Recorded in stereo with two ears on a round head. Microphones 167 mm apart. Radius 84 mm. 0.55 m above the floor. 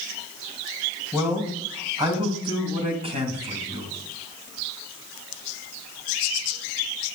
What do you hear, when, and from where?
1.1 s a man speaking: 15° right (ahead or behind), 2.5 m; by 3.9 s 35° right (ahead or behind), 3.5 m